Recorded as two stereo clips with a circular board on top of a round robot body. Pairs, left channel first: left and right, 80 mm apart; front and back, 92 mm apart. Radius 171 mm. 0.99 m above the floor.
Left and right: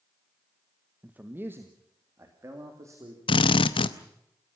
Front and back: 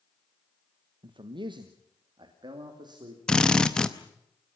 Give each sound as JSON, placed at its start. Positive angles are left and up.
{"t": 1.0, "sound": "a man speaking", "azimuth_deg": -160, "distance_m": 1.3}
{"t": 3.3, "sound": "a drill", "azimuth_deg": 80, "distance_m": 0.8}